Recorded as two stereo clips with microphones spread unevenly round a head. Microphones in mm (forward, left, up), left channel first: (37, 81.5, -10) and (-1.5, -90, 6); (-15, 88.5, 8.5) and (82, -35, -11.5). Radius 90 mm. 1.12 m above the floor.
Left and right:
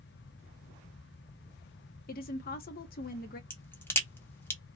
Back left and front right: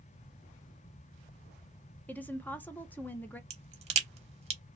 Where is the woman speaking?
45° left, 0.6 m.